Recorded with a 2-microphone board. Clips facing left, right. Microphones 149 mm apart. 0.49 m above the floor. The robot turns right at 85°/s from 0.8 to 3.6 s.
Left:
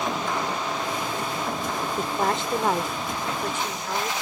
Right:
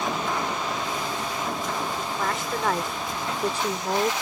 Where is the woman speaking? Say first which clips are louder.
Left 3 dB; 100° left; by 4.1 s 120° right.